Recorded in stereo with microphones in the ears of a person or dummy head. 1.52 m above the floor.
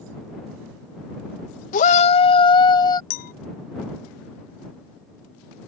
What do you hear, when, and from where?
1.7 s a shout: 50° left (ahead or behind); by 3.0 s 25° left (ahead or behind)
3.1 s a clink: 45° left (ahead or behind)